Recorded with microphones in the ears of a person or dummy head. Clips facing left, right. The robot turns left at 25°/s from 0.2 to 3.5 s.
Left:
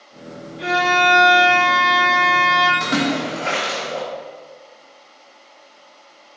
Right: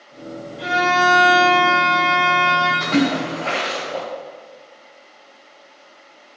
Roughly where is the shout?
No shout in this recording.